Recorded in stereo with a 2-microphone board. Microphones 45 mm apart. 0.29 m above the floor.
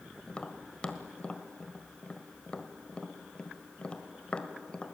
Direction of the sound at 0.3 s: 25° left (ahead or behind).